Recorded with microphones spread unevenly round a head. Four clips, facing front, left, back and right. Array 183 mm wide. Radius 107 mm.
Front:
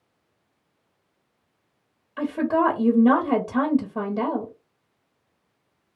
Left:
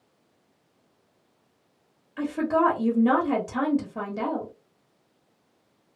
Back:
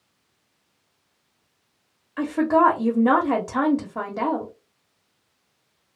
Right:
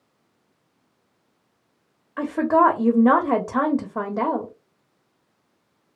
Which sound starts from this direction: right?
A woman speaking, at 2.2 s.